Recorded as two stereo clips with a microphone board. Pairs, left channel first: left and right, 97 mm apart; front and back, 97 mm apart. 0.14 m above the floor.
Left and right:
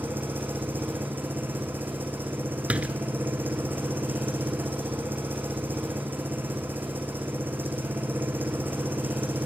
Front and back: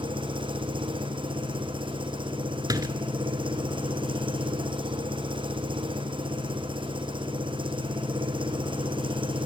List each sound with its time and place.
0.0 s an engine running: 160° right, 3 m
2.7 s a door slam: 160° right, 1.3 m